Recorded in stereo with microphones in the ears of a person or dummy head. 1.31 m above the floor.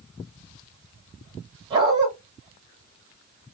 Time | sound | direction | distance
1.7 | a dog barking | 30° right (ahead or behind) | 1.6 m